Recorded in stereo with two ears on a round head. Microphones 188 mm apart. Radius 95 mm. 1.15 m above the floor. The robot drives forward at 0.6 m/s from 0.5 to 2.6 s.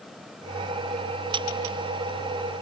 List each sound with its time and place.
Only background noise.